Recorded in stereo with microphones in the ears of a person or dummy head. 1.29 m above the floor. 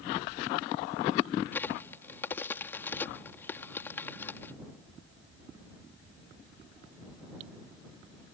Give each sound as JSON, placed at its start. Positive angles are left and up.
{"t": 1.5, "sound": "a crack", "side_deg": 15}